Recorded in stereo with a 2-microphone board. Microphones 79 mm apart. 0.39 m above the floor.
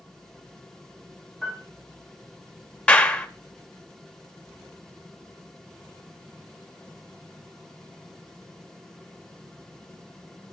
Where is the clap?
15° left (ahead or behind), 1.1 m.